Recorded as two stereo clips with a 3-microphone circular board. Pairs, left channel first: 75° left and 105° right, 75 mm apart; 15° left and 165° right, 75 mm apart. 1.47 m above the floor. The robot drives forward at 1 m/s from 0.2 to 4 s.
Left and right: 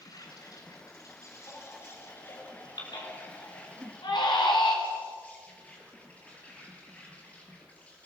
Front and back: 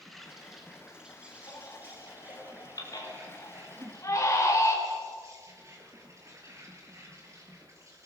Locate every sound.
0.0 s an insect: 105° left, 3.5 m; by 8.1 s 145° left, 5.5 m
1.5 s a baby crying: 40° left, 5.5 m; by 4.8 s 65° left, 4 m
3.8 s a whoosh: 150° right, 2.5 m